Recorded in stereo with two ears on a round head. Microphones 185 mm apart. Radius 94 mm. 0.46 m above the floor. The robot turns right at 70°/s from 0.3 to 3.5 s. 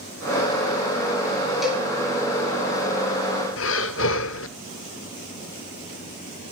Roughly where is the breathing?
Left.